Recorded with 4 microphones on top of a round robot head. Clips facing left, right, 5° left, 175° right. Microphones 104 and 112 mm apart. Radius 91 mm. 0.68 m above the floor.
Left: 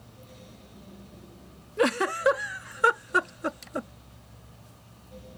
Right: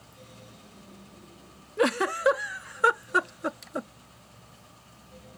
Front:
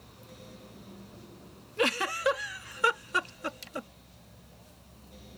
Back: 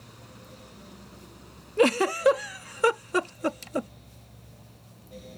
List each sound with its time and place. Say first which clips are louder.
1.8 s a giggle: even, back 8 dB; 175° right